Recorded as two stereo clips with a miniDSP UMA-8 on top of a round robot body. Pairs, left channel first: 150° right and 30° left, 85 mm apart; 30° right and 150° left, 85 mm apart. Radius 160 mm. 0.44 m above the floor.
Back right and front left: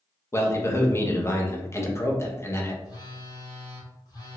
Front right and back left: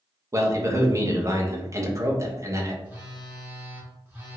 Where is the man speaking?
175° left, 0.9 m.